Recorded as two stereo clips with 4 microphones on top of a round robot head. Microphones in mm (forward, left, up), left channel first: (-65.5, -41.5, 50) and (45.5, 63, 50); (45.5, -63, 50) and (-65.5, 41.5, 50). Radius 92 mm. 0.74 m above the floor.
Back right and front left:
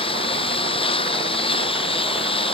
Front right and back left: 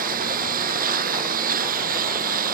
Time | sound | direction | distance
0.0 | a lawn mower | 165° left | ?